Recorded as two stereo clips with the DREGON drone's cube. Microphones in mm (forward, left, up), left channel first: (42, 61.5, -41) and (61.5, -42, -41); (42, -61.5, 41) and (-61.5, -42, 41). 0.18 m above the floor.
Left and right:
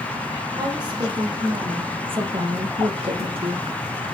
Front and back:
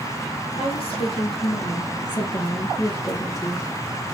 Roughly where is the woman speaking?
Ahead right.